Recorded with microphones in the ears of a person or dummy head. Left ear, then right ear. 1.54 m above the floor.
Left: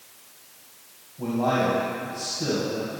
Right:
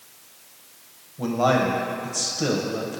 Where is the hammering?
I don't hear hammering.